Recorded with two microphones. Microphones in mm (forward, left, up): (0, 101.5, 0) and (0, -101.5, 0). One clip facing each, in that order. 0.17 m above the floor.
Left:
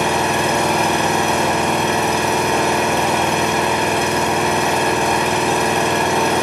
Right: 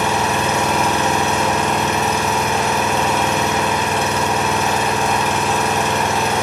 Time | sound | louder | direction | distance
0.0 | an engine running | left 1 dB | 60° left (ahead or behind) | 1.7 m